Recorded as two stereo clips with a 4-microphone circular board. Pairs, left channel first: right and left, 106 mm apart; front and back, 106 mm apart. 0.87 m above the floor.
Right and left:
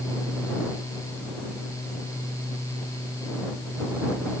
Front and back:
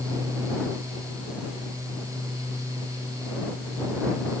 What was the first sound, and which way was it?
Only background noise.